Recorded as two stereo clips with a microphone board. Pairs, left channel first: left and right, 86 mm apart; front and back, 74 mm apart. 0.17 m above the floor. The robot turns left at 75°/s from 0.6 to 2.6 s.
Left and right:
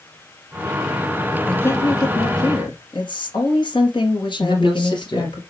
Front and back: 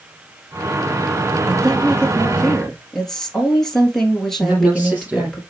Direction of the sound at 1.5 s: 170° left.